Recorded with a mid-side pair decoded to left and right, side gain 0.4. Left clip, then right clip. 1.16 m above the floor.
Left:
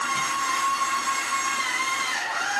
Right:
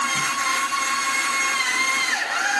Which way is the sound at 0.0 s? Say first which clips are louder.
Right 3 dB; 70° right.